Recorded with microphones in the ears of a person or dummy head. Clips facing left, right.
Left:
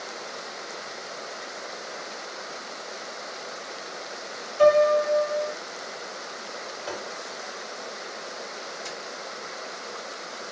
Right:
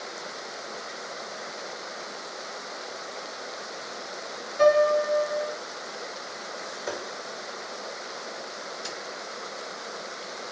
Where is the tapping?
45° right (ahead or behind), 1.0 m.